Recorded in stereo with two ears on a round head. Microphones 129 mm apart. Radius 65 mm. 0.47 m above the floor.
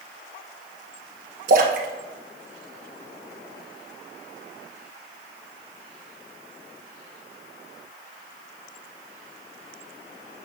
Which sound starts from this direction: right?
A splash, at 1.5 s.